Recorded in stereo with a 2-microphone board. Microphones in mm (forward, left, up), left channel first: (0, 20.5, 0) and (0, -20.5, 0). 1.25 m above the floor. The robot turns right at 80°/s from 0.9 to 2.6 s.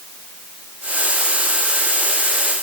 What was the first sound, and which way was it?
Only background noise.